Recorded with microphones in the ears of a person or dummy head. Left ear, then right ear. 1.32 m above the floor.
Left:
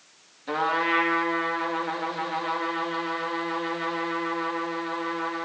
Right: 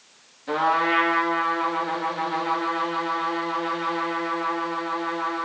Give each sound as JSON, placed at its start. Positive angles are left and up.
{"t": 0.5, "sound": "a trumpet", "side_deg": 10, "distance_m": 3.0}